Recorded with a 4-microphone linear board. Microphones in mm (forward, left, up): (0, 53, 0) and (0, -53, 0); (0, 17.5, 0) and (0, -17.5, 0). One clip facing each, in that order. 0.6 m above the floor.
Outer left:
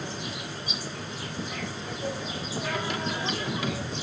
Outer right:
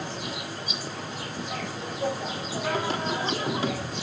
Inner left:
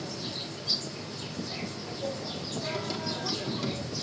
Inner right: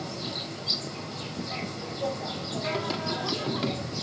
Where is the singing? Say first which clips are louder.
Outer right 4 dB, inner right 4 dB; 35° right (ahead or behind), 1.6 m.